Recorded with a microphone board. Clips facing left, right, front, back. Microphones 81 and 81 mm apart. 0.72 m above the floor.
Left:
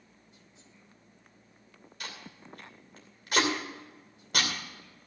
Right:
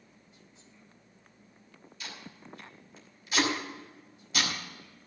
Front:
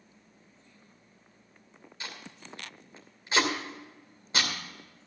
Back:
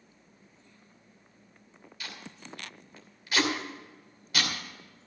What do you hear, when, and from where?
2.0 s tape being pulled: 60° left, 2.5 m